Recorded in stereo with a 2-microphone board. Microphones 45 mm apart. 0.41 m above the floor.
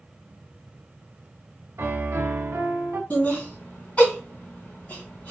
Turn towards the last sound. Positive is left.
turn(degrees=35)  # may be behind; listen again after turning